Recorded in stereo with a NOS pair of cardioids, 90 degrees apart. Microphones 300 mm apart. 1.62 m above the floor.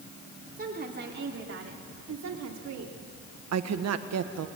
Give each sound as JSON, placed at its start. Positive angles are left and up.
{"t": 0.6, "sound": "a woman speaking", "azimuth_deg": -30, "distance_m": 4.0}
{"t": 3.5, "sound": "a woman speaking", "azimuth_deg": -60, "distance_m": 1.6}